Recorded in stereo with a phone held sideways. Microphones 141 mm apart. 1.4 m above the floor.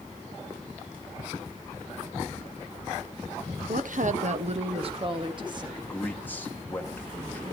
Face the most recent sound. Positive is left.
turn(degrees=15)  # may be behind; listen again after turning